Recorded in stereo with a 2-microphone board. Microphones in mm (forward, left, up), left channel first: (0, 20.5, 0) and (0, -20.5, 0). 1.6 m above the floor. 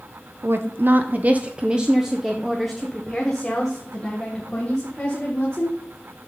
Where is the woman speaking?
75° right (ahead or behind), 0.7 m; by 5.8 s 20° left (ahead or behind), 2.5 m.